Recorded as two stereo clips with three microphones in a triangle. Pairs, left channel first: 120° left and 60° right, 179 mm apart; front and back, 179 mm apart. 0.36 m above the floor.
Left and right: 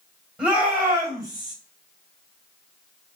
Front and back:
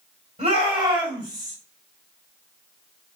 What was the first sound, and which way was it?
A shout, 140° right.